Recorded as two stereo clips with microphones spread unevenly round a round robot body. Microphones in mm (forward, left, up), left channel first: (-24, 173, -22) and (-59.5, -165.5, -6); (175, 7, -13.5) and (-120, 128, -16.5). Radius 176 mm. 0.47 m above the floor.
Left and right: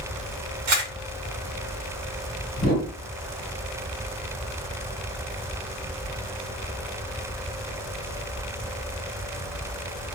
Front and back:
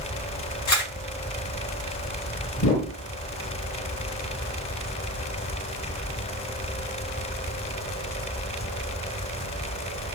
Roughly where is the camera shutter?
Ahead right.